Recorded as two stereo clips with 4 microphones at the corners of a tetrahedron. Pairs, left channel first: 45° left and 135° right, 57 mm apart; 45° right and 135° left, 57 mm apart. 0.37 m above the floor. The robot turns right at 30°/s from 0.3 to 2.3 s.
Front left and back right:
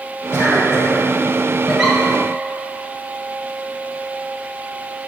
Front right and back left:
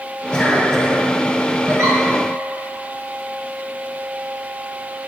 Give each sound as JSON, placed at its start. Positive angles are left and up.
{"t": 0.3, "sound": "a cough", "azimuth_deg": 25, "distance_m": 2.0}
{"t": 1.7, "sound": "a giggle", "azimuth_deg": 135, "distance_m": 1.9}